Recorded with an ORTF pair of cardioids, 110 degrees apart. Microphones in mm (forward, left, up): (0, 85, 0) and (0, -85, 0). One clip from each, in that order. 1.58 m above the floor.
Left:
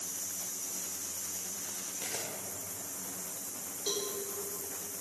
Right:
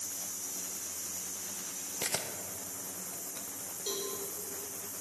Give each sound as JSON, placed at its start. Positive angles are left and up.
{"t": 2.0, "sound": "a camera shutter", "azimuth_deg": -50, "distance_m": 1.2}
{"t": 3.9, "sound": "a cowbell", "azimuth_deg": 10, "distance_m": 3.5}